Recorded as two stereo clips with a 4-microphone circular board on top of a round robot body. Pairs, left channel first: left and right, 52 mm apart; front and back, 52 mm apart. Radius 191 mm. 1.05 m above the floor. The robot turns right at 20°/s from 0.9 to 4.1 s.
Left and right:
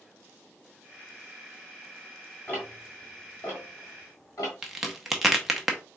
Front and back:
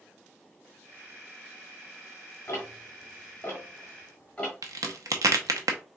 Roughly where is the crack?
Behind.